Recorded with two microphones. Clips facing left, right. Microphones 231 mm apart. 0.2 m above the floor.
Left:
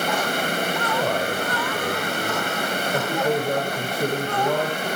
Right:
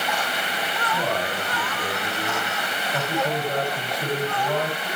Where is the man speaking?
55° left (ahead or behind), 8 m.